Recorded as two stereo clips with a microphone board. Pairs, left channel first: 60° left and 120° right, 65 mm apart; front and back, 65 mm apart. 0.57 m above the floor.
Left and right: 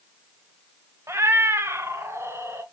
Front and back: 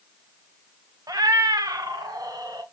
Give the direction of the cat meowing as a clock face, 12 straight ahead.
6 o'clock.